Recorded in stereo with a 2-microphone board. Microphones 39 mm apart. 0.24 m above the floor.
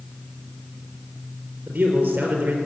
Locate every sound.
1.7 s a man speaking: 40° right (ahead or behind), 4.5 m